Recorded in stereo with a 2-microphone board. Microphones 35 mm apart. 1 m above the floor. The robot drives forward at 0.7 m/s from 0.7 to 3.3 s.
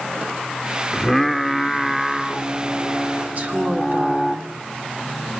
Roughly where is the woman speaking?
Right.